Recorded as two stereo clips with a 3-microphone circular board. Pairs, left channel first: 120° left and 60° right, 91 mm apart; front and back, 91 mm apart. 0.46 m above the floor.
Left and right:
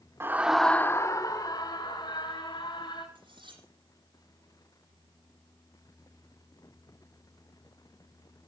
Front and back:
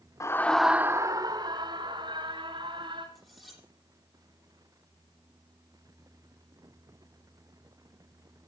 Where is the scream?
20° right, 0.9 m; by 3.0 s 155° left, 3.5 m.